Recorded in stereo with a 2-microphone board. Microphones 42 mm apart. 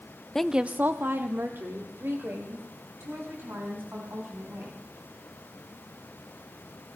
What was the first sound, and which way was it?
A woman speaking, 10° left (ahead or behind).